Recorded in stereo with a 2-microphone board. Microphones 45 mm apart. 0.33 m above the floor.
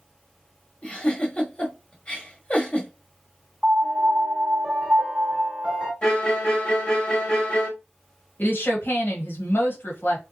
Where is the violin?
20° left (ahead or behind), 1.1 m.